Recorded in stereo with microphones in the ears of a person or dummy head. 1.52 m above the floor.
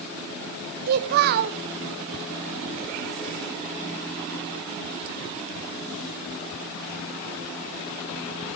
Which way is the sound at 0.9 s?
50° right (ahead or behind).